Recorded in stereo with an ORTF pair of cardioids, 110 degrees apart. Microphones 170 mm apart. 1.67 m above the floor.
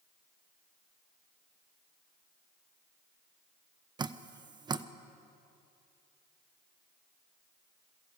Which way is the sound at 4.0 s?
25° right.